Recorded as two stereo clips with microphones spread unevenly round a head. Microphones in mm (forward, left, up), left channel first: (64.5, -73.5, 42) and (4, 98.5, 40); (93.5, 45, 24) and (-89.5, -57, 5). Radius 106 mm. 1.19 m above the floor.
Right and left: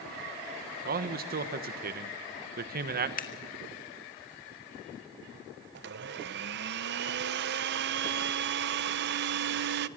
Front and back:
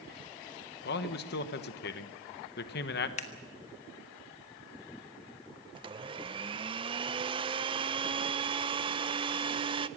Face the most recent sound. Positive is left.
turn(degrees=140)